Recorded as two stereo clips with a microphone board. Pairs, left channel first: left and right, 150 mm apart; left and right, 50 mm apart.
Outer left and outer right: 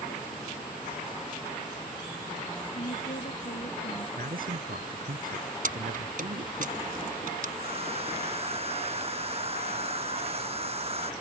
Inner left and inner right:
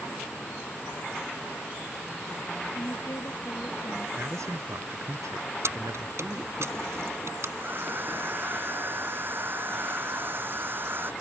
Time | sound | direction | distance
2.7 | a woman speaking | 70° left (ahead or behind) | ?
4.2 | a man speaking | 75° right (ahead or behind) | ?
5.6 | keys jangling | 65° right (ahead or behind) | ?
7.6 | a hair dryer | 40° right (ahead or behind) | ?